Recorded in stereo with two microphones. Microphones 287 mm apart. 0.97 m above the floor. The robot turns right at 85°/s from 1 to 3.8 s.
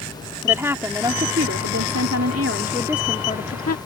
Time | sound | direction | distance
0.4 | a woman speaking | 170° right | ?